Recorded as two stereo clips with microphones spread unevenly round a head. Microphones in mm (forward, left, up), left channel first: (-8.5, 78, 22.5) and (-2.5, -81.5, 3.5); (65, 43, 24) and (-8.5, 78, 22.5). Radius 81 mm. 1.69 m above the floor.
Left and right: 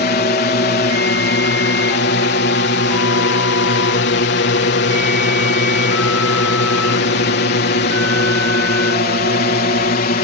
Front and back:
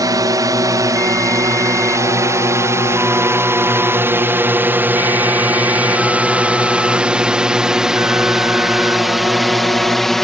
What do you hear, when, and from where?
0.0 s a drone: 120° left; by 10.2 s 60° left